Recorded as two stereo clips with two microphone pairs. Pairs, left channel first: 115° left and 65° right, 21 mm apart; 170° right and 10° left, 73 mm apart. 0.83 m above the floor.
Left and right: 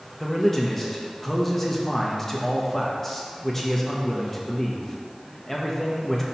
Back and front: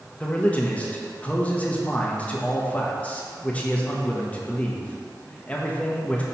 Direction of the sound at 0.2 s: 170° left.